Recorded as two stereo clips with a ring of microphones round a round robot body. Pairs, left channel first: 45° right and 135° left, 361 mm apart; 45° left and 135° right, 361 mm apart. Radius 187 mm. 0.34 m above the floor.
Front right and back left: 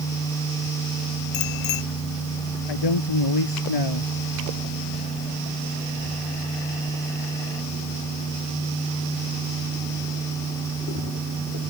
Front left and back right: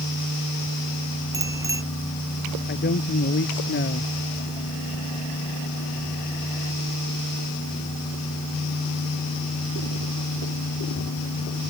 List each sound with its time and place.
1.3 s a bicycle bell: 55° right
2.7 s a man speaking: 20° right